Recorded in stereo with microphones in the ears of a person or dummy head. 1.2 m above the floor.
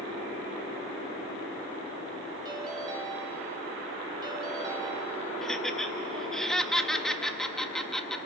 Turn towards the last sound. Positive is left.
turn(degrees=5)  # may be behind; listen again after turning